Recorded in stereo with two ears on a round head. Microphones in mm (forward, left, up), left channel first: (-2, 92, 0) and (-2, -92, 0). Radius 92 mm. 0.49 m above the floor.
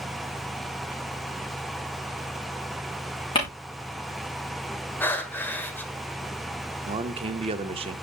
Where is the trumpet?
I don't hear a trumpet.